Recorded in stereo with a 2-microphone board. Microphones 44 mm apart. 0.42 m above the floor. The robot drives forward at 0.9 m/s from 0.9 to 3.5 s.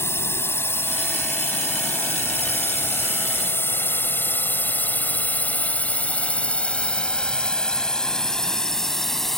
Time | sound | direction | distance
0.0 | a drone | 65° left (ahead or behind) | ?